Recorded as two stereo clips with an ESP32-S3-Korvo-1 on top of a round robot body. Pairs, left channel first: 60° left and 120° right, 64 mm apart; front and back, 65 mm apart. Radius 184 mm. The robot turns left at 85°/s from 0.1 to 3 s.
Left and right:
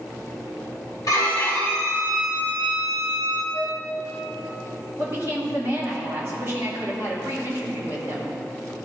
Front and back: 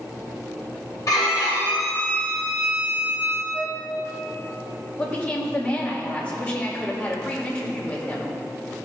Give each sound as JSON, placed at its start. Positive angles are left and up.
{"t": 1.1, "sound": "a violin", "azimuth_deg": 35, "distance_m": 2.0}
{"t": 3.5, "sound": "a flute", "azimuth_deg": -75, "distance_m": 3.0}
{"t": 5.0, "sound": "a woman speaking", "azimuth_deg": -70, "distance_m": 2.5}